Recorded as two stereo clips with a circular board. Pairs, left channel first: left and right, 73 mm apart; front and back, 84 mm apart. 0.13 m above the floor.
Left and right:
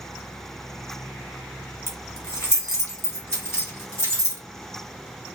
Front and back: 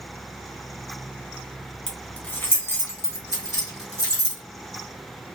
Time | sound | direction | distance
1.9 | keys jangling | 75° left | 1.0 m